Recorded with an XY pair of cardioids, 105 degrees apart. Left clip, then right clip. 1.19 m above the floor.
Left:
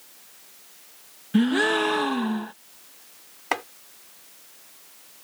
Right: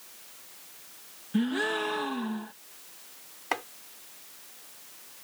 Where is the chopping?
35° left.